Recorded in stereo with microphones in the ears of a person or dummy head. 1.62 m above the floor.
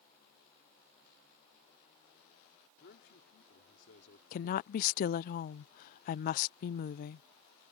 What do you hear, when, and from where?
2.8 s a man speaking: 70° left (ahead or behind)
4.3 s a woman speaking: 60° left (ahead or behind)